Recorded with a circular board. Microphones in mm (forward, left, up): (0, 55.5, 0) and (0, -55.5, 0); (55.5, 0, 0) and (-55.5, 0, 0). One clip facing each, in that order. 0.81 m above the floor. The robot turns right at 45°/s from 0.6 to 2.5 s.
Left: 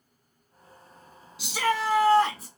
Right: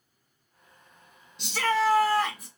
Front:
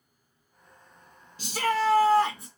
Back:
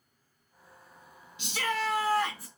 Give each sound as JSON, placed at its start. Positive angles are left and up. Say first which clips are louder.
{"t": 1.4, "sound": "a shout", "louder": "right 1 dB, front 6 dB", "azimuth_deg": 5, "distance_m": 0.6}